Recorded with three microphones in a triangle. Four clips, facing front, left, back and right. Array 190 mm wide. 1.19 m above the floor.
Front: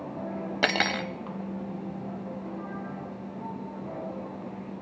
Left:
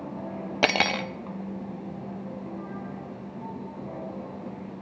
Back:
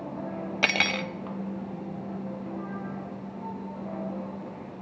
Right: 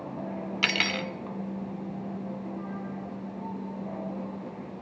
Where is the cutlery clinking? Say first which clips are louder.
Left 8 dB, front 2 dB; 85° left, 1.2 m.